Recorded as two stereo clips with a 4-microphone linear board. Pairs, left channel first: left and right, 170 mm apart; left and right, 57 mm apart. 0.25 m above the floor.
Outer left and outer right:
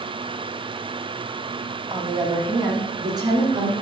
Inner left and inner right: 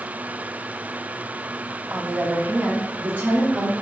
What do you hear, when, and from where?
1.9 s a woman speaking: 20° right (ahead or behind), 1.0 m; by 3.7 s 25° right (ahead or behind), 3.5 m